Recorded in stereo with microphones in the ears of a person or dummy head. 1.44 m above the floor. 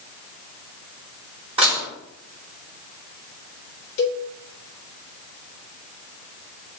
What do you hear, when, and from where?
1.6 s dishes clattering: 30° right (ahead or behind), 2.5 m
4.0 s a cowbell: 60° left (ahead or behind), 1.5 m